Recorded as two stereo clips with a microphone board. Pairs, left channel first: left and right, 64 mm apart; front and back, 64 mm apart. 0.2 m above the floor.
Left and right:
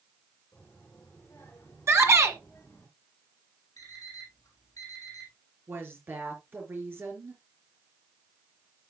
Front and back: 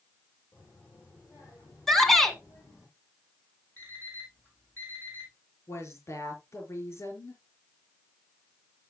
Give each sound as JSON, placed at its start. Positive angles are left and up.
{"t": 0.5, "sound": "a child speaking", "azimuth_deg": 30, "distance_m": 7.0}
{"t": 1.9, "sound": "a shout", "azimuth_deg": -85, "distance_m": 2.0}
{"t": 3.8, "sound": "an alarm clock", "azimuth_deg": 60, "distance_m": 4.5}
{"t": 5.7, "sound": "a woman speaking", "azimuth_deg": -40, "distance_m": 3.5}